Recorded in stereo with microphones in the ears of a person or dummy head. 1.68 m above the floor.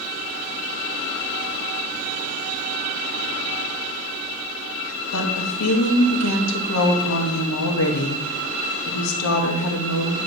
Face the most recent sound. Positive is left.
turn(degrees=75)  # may be behind; listen again after turning